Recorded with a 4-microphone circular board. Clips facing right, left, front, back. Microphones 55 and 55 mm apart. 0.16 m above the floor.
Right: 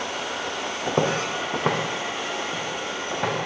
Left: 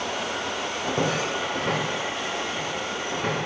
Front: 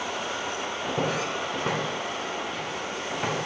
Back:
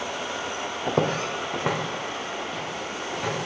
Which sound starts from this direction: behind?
Footsteps, at 0.9 s.